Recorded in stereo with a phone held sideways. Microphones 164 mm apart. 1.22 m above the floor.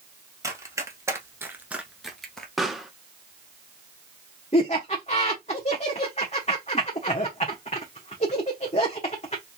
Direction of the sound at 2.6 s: Centre (ahead or behind).